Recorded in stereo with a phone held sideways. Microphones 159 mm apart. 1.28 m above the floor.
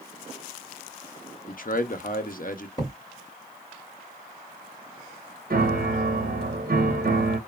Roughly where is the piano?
Right.